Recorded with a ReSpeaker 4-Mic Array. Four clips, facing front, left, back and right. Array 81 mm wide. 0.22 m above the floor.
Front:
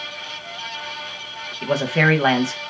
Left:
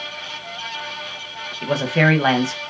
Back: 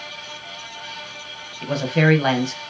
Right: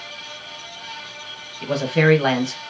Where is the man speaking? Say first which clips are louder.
Even, even; 40° left, 0.9 m.